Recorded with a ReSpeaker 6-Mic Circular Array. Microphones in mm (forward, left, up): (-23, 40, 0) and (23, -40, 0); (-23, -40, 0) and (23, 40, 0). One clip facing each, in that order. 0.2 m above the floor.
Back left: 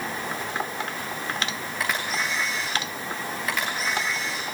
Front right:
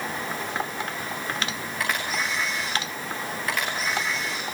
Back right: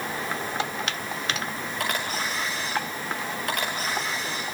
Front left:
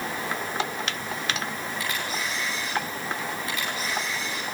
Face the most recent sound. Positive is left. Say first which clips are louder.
# even, back right 4 dB
turn(degrees=-155)